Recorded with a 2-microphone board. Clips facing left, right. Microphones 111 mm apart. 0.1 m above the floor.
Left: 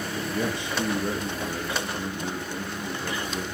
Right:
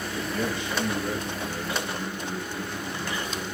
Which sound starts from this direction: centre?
A man speaking, at 0.3 s.